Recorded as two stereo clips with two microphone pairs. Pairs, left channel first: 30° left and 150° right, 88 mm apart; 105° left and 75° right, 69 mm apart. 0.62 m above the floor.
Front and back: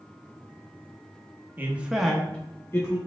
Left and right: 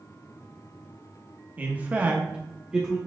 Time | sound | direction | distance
1.6 | a man speaking | 120° right | 0.8 m